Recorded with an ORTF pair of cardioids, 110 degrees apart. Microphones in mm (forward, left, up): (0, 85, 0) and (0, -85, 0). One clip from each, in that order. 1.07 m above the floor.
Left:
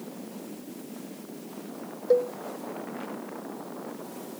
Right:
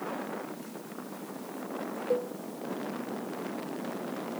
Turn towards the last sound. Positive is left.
turn(degrees=45)